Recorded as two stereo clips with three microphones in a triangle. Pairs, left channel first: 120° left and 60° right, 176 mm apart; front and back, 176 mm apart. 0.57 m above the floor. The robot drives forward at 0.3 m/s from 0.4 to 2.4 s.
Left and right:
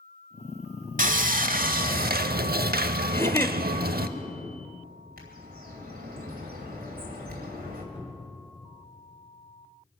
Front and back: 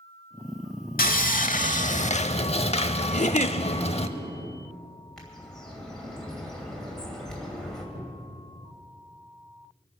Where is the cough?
No cough in this recording.